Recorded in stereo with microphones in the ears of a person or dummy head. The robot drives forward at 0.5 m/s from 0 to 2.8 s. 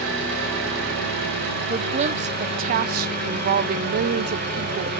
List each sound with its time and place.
0.0 s an engine running: 65° right (ahead or behind), 4 m; by 5.0 s 55° right (ahead or behind), 4.5 m
1.7 s a woman speaking: 30° right (ahead or behind), 0.9 m; by 4.9 s 45° right (ahead or behind), 0.6 m